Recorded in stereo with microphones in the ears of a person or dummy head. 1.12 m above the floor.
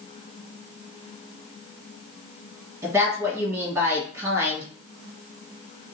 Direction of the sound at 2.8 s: 25° right (ahead or behind).